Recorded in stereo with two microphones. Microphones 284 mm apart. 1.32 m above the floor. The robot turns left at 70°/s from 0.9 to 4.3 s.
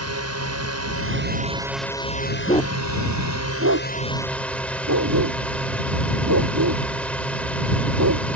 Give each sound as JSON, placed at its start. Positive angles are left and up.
{"t": 0.0, "sound": "a drone", "azimuth_deg": -115}
{"t": 2.5, "sound": "a dog barking", "side_deg": 30}